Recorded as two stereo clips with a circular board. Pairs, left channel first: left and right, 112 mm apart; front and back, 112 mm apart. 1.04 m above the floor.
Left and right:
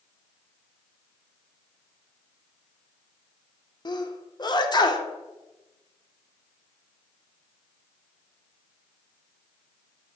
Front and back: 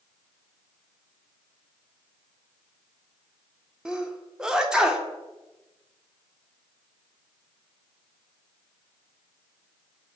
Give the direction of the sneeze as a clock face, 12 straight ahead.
9 o'clock.